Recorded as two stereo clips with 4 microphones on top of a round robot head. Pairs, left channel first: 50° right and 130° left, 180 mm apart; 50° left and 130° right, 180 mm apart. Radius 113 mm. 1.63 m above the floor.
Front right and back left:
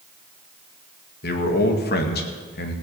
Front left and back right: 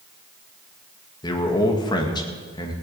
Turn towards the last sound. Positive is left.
turn(degrees=-15)